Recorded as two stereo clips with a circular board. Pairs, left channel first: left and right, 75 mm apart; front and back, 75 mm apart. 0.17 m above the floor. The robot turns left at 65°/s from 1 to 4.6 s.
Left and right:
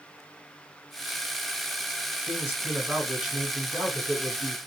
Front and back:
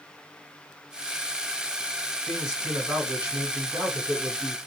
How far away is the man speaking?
About 1.5 m.